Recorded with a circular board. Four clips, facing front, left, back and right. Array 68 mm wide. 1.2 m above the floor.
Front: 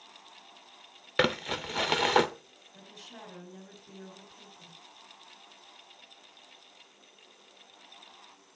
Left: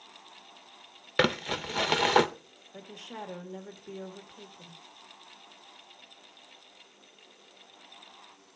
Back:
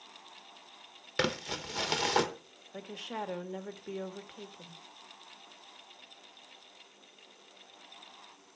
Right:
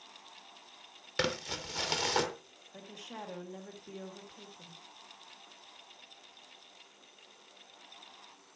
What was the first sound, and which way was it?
Crumpling, 50° left.